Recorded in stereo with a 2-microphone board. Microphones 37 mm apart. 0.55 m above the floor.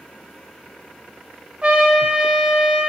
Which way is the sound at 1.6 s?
30° right (ahead or behind).